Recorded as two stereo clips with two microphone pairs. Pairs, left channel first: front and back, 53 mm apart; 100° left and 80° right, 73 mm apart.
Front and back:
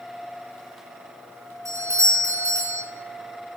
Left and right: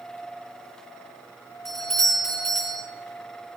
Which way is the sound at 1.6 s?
175° right.